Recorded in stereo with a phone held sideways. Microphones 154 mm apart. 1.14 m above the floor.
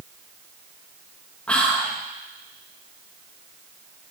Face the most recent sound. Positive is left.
turn(degrees=5)  # may be behind; listen again after turning